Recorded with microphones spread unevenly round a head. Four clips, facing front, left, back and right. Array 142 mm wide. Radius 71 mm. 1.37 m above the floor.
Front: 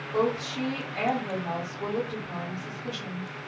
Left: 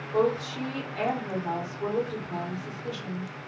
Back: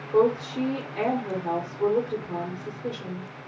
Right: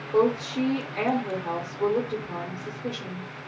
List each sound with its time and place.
0.1 s a woman speaking: 145° right, 1.1 m